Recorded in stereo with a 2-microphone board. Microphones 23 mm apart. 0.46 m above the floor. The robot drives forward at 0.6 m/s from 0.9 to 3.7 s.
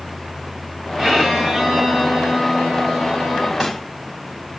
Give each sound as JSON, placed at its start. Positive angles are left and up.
{"t": 1.0, "sound": "a violin", "side_deg": -15, "distance_m": 4.0}
{"t": 3.6, "sound": "a snare drum", "side_deg": 5, "distance_m": 2.5}